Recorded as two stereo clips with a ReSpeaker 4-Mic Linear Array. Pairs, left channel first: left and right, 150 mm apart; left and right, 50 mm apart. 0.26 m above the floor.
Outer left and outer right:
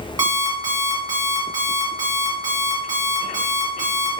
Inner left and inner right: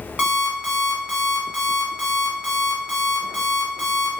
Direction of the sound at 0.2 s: 25° right (ahead or behind).